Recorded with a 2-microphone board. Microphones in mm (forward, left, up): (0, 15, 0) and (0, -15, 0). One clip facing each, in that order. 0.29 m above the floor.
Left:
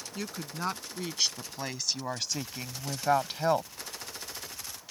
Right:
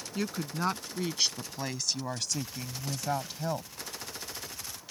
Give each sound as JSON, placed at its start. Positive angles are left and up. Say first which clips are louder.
{"t": 0.1, "sound": "a woman speaking", "louder": "right 4 dB", "side_deg": -10}